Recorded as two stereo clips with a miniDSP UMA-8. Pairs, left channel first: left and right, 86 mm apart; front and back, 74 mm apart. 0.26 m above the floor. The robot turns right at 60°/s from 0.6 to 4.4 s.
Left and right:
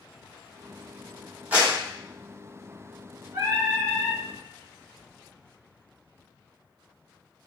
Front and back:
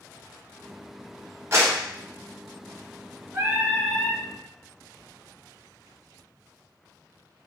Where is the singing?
120° right, 0.8 m; by 4.2 s 70° right, 0.8 m.